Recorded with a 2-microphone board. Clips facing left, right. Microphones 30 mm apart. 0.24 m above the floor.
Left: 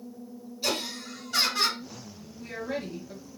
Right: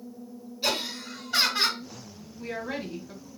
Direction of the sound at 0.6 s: 20° right (ahead or behind).